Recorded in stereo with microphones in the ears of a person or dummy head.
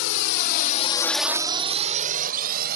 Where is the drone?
75° left (ahead or behind); by 2.8 s 55° right (ahead or behind).